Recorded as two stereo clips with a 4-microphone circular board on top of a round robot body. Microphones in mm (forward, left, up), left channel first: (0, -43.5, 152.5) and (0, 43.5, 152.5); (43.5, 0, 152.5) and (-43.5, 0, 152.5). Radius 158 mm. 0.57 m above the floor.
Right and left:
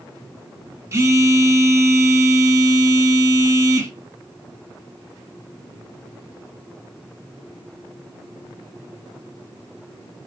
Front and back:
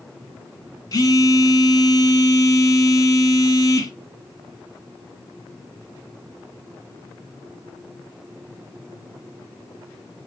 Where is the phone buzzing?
35° left, 1.9 m.